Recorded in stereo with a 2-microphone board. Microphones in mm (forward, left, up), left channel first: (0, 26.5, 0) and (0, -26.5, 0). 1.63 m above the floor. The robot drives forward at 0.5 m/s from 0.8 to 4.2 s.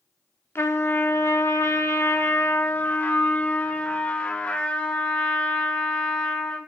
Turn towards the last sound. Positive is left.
turn(degrees=30)  # may be behind; listen again after turning